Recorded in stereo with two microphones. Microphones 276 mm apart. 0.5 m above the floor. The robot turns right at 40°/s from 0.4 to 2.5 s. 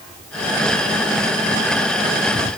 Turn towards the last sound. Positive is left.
No sound to turn to.